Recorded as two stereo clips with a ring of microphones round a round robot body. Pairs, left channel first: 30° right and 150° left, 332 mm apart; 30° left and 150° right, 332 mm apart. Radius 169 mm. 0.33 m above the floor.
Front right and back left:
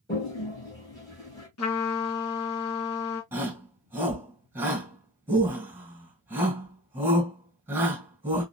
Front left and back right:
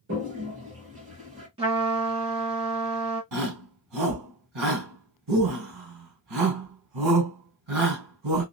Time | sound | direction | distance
0.1 | a toilet flushing | 105° right | 2.5 m
1.6 | a trumpet | 75° right | 2.5 m
3.3 | a shout | 125° right | 3 m